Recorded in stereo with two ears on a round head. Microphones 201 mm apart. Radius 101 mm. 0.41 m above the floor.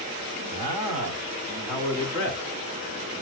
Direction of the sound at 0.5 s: 30° right (ahead or behind).